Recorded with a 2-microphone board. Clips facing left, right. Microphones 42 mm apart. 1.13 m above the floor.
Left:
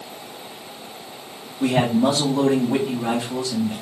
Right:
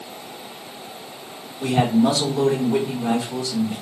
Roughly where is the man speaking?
Left.